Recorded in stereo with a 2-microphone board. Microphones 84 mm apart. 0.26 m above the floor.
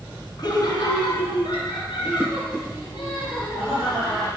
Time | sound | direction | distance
0.4 | laughter | 50° left (ahead or behind) | 2.5 m